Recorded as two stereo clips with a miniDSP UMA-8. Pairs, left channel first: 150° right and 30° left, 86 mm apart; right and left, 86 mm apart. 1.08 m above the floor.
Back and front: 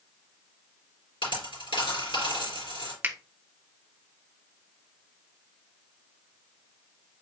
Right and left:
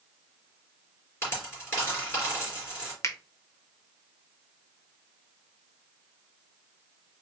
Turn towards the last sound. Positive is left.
turn(degrees=-40)